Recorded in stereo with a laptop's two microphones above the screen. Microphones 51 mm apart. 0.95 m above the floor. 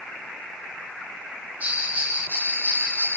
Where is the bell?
35° right (ahead or behind), 8 m.